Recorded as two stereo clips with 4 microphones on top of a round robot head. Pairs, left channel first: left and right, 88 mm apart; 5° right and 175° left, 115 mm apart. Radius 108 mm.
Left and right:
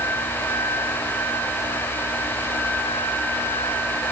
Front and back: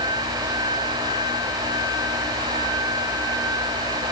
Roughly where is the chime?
I don't hear a chime.